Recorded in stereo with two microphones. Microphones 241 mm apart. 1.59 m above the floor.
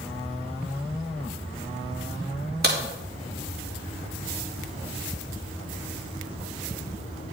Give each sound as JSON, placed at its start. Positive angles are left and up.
{"t": 2.6, "sound": "a crack", "side_deg": -45, "distance_m": 2.5}